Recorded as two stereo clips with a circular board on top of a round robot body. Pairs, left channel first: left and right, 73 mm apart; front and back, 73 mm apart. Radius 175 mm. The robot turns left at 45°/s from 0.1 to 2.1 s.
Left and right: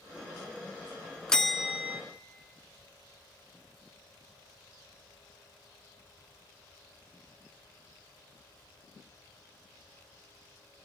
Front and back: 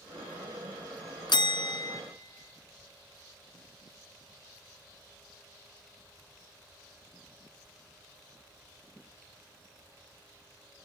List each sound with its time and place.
1.3 s a bell: 10° left, 0.7 m; by 2.0 s 20° right, 0.7 m